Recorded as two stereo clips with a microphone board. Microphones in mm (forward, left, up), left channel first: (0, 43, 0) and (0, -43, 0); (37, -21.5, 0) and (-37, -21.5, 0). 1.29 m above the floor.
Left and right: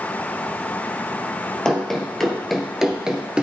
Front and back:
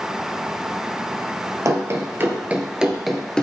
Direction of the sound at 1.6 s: 170° left.